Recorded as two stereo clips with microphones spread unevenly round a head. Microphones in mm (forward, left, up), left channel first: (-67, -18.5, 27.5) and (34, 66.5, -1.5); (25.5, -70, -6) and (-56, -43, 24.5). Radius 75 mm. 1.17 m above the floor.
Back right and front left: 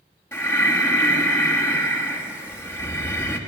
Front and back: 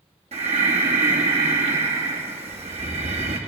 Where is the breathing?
145° left, 2 m.